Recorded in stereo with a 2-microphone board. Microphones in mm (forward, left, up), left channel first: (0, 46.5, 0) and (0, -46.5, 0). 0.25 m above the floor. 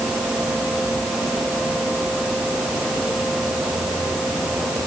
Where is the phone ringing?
I don't hear a phone ringing.